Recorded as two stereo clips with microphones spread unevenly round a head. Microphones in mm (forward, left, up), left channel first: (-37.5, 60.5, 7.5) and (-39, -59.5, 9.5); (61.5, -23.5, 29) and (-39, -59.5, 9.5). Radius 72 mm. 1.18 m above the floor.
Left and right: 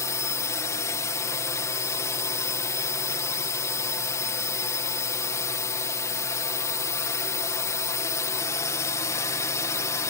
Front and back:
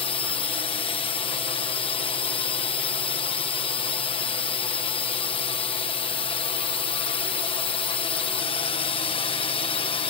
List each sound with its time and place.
0.0 s a drone: 35° left